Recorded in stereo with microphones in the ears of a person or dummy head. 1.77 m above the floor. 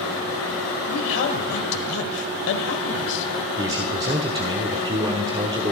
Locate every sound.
0.9 s a man speaking: 60° left (ahead or behind), 1.4 m
3.6 s a man speaking: 20° right (ahead or behind), 1.0 m